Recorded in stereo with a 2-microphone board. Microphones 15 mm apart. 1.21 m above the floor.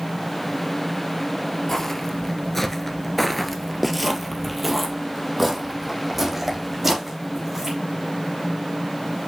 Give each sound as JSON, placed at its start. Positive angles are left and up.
{"t": 1.7, "sound": "footsteps", "side_deg": 25, "distance_m": 1.5}